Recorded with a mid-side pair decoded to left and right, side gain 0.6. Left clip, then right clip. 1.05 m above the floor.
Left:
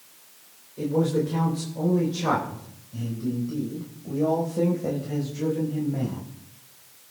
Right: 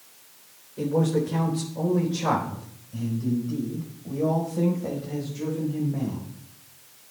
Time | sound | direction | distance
0.8 | a man speaking | 15° right | 3.5 m